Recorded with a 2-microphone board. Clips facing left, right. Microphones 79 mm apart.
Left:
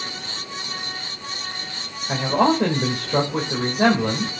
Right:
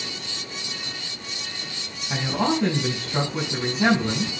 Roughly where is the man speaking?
Left.